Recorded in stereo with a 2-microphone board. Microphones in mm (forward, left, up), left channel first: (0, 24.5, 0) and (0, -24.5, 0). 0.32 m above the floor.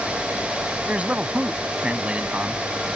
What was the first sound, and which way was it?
A man speaking, 30° right (ahead or behind).